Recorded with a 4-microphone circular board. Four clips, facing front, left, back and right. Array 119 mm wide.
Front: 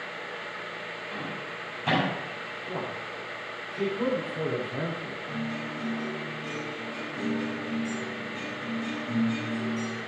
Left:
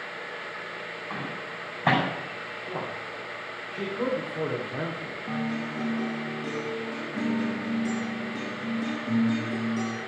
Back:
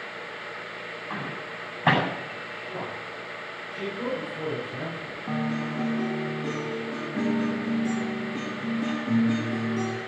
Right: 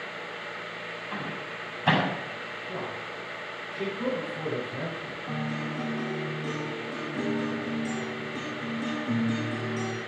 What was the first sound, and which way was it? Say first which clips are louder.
A microwave: even, back 3 dB; 145° left.